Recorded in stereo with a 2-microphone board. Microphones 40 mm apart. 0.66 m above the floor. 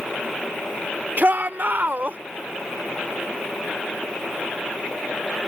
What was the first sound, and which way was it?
A shout, 50° right (ahead or behind).